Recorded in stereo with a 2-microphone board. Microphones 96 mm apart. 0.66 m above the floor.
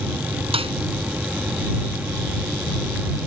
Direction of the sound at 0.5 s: 75° right (ahead or behind).